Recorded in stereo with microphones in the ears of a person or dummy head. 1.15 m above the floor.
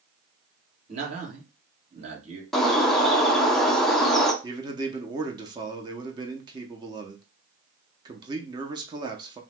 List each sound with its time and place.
0.9 s a man speaking: 35° right (ahead or behind), 1.4 m
2.5 s a bird: 5° left (ahead or behind), 0.6 m
4.4 s a man speaking: 20° right (ahead or behind), 0.5 m